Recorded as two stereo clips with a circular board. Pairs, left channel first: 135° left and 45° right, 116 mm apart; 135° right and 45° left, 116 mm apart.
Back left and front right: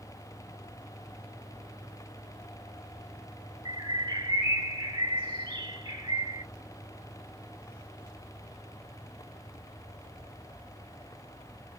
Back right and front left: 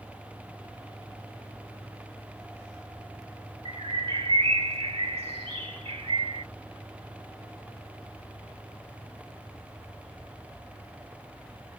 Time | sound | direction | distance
3.6 | a bird | 5° left | 1.8 m